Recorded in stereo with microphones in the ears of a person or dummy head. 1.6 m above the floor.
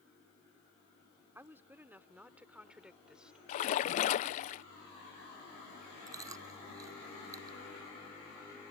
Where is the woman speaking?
10° right (ahead or behind); by 3.4 s centre (ahead or behind).